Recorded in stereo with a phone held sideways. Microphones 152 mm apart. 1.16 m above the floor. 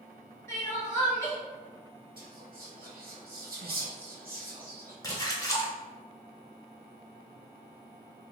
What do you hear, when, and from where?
0.5 s crying: 20° left (ahead or behind), 1.2 m
2.2 s whispering: 75° right (ahead or behind), 0.7 m
5.0 s a splash: 20° left (ahead or behind), 0.7 m